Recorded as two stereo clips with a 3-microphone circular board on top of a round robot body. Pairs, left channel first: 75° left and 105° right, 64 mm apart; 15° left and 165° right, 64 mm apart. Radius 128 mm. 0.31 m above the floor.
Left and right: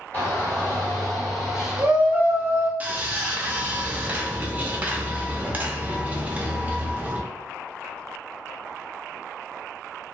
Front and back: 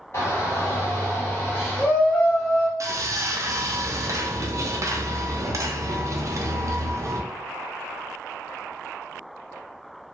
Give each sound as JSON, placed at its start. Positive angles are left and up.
{"t": 0.1, "sound": "a shout", "azimuth_deg": 25, "distance_m": 1.5}
{"t": 2.8, "sound": "sawing", "azimuth_deg": -165, "distance_m": 0.7}